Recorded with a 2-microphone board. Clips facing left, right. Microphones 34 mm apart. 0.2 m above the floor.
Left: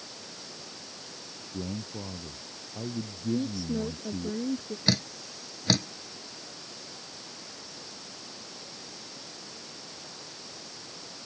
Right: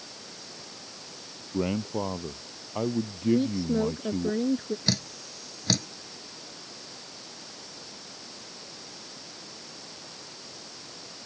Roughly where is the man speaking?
Right.